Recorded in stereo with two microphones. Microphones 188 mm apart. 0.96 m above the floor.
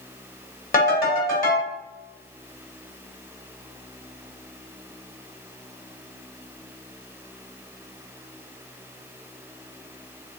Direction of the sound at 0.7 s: 50° left (ahead or behind).